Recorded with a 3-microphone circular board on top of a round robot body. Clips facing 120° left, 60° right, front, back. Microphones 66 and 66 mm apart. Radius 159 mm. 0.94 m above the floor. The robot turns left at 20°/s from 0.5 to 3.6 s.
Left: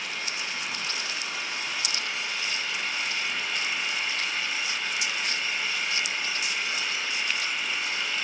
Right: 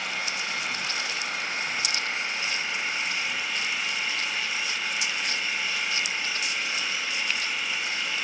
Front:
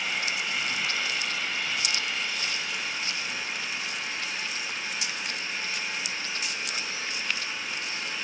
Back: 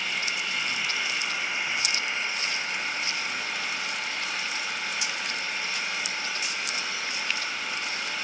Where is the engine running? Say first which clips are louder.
Right 3 dB, even; 85° right, 6.5 m; by 8.2 s 145° right, 6.5 m.